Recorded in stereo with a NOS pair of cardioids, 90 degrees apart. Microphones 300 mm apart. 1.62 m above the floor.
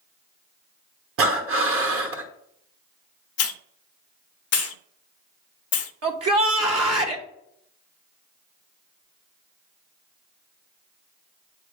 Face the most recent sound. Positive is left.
turn(degrees=-55)